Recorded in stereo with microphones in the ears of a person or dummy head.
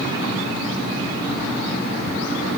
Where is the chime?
No chime in this recording.